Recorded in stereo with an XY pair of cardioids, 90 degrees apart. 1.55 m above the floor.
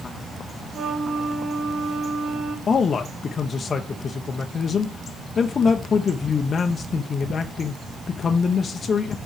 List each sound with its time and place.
0.7 s a flute: 65° right, 2 m
2.7 s a man speaking: 55° left, 0.8 m